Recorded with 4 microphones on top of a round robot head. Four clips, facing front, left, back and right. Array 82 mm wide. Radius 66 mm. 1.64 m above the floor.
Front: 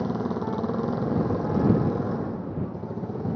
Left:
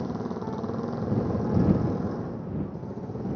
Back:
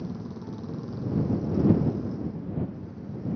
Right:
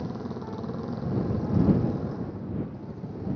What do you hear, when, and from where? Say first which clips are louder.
0.0 s a motorcycle: left 3 dB, front 9 dB; 10° left; by 3.4 s 15° left